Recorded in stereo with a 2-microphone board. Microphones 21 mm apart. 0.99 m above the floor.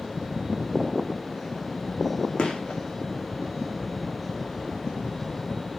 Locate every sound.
2.4 s a gunshot: 55° left (ahead or behind), 2.5 m